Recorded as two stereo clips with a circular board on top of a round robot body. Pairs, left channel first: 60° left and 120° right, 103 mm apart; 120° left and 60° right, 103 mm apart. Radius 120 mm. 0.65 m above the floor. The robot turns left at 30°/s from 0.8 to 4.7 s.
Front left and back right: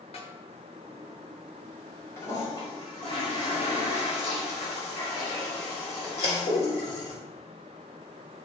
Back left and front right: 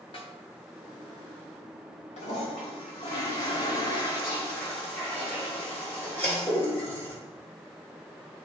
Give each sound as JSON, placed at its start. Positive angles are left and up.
{"t": 0.1, "sound": "a snare drum", "azimuth_deg": 85, "distance_m": 1.6}
{"t": 2.2, "sound": "a toilet flushing", "azimuth_deg": 125, "distance_m": 4.0}